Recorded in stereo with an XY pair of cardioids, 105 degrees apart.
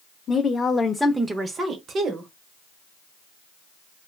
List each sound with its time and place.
0.3 s a woman speaking: 45° left, 0.7 m; by 2.3 s 65° right, 1.0 m